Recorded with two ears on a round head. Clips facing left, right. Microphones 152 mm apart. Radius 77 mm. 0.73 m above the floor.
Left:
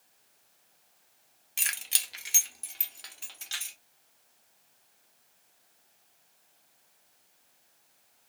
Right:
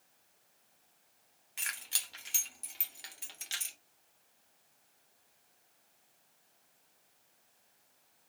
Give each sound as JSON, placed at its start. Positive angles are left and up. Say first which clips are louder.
{"t": 1.6, "sound": "keys jangling", "louder": "left 4 dB", "side_deg": 40, "distance_m": 1.0}